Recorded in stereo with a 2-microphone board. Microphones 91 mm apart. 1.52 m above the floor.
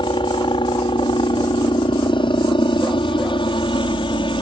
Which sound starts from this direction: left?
A helicopter, at 0.0 s.